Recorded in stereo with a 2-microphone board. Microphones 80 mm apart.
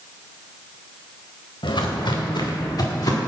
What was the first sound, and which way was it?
Footsteps, 75° left (ahead or behind).